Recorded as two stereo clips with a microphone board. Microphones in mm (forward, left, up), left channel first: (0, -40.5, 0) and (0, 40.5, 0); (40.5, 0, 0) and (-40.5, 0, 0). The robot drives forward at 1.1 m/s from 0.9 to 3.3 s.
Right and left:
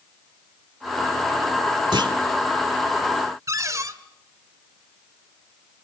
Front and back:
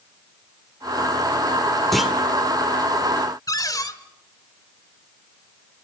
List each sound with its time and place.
1.9 s a clunk: 90° left, 1.8 m; by 2.1 s 95° left, 1.9 m
3.5 s a cupboard door: 40° left, 1.5 m